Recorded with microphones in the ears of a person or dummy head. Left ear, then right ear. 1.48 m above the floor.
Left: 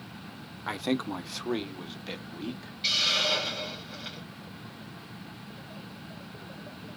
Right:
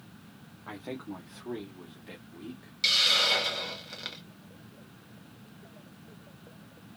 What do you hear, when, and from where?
0.7 s a man speaking: 70° left (ahead or behind), 0.8 m; by 2.7 s 35° left (ahead or behind), 1.6 m
2.8 s a hiss: 50° right (ahead or behind), 0.9 m